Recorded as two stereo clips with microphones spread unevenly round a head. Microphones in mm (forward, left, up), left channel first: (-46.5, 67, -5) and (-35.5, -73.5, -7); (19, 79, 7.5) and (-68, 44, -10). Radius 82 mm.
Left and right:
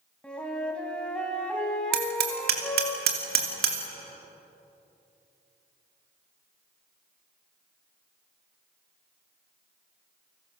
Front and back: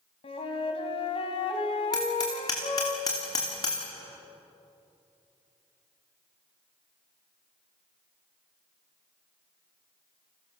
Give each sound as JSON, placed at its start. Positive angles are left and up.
{"t": 0.2, "sound": "a flute", "azimuth_deg": 10, "distance_m": 2.5}
{"t": 1.9, "sound": "hammering", "azimuth_deg": -50, "distance_m": 3.0}